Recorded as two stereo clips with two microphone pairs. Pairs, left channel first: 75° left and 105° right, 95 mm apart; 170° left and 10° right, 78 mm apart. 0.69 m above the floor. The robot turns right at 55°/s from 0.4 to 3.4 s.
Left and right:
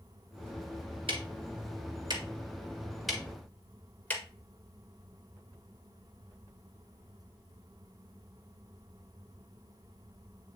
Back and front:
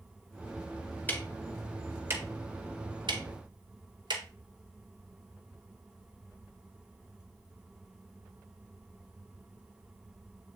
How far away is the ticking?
About 1.9 m.